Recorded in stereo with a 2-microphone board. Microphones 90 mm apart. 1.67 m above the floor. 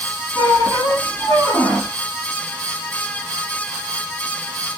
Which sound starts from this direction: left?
A squeak, at 0.3 s.